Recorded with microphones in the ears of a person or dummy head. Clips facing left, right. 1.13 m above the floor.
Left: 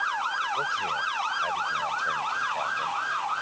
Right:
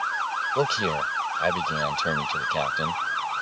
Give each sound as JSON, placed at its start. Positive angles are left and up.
{"t": 0.6, "sound": "a man speaking", "side_deg": -85}